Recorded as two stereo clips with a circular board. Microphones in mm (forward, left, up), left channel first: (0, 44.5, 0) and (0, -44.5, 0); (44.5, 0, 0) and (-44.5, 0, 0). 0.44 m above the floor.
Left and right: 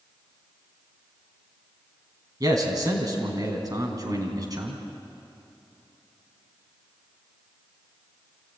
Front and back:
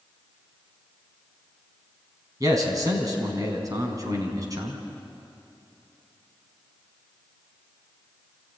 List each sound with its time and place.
2.4 s a man speaking: 135° right, 4 m